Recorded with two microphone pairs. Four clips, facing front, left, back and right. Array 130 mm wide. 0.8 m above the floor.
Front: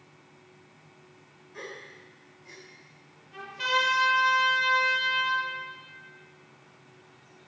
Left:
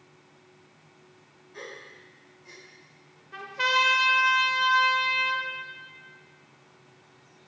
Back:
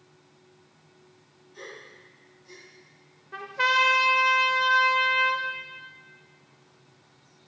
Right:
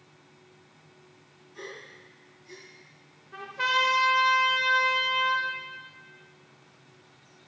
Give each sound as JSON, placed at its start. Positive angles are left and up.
{"t": 1.5, "sound": "a gasp", "azimuth_deg": 50, "distance_m": 3.5}
{"t": 3.3, "sound": "a trumpet", "azimuth_deg": 170, "distance_m": 1.0}